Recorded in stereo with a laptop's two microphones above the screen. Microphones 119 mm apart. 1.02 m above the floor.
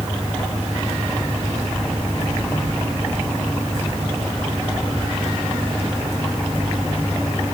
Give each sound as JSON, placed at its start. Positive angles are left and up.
{"t": 0.0, "sound": "an engine running", "side_deg": 5}